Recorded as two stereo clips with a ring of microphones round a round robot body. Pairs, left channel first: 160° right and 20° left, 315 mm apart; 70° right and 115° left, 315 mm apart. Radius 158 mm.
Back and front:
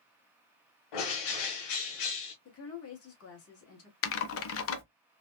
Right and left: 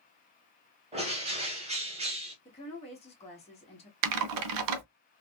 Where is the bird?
175° right, 1.0 m.